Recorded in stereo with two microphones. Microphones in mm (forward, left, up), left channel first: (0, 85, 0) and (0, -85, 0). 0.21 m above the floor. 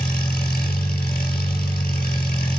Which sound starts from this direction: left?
An engine running, at 0.0 s.